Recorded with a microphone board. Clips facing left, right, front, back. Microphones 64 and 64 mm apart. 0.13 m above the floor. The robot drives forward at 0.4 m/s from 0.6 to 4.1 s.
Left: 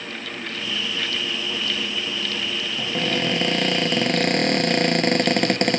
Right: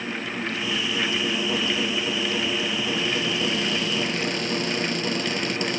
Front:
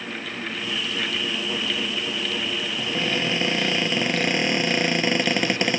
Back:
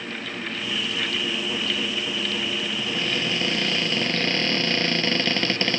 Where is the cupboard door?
60° left; by 5.8 s 70° left.